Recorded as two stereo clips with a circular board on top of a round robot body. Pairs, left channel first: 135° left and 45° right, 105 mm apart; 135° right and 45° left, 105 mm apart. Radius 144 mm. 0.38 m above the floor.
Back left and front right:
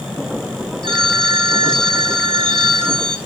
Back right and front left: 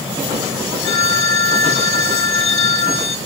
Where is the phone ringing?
145° right, 1.6 m.